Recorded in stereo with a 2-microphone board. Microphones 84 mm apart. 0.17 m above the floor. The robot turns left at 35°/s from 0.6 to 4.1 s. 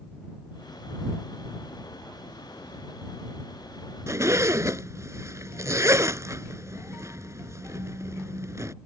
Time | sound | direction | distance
4.1 | a zipper | 35° right (ahead or behind) | ?